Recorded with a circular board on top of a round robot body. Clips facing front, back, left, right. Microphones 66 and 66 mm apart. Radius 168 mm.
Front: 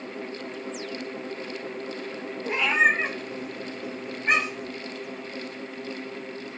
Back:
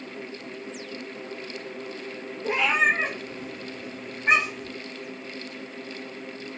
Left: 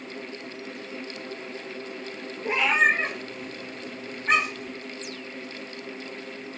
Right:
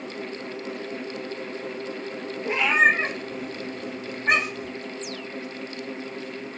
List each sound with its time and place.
2.4 s a cat meowing: 170° left, 0.5 m; by 4.8 s 100° right, 1.1 m